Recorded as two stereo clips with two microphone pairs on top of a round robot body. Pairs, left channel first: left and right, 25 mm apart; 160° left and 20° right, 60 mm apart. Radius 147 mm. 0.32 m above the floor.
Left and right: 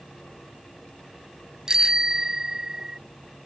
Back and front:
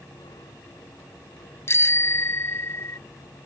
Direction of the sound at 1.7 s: 155° right.